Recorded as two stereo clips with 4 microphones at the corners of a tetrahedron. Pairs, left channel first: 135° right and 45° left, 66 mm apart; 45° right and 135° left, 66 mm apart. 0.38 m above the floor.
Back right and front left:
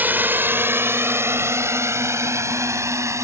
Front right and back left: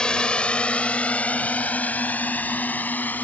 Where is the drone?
20° left; by 3.2 s 15° left.